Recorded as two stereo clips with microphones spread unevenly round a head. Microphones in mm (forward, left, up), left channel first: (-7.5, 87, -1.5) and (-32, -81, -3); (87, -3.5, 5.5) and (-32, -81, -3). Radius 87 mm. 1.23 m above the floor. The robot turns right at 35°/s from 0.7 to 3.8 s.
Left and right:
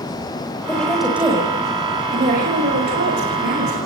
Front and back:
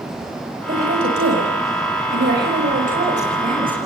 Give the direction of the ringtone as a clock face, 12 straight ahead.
I don't hear a ringtone.